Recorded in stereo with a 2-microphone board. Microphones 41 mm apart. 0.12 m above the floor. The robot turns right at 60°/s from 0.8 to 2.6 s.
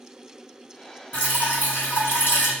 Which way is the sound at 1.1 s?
40° left.